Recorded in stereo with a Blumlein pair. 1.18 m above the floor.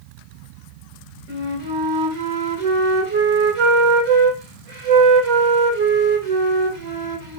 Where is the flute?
45° right, 2 m.